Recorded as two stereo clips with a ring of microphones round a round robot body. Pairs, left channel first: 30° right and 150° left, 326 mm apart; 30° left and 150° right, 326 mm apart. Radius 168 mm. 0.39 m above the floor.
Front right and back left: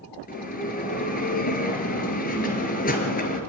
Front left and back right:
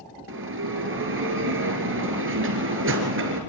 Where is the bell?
95° right, 4 m.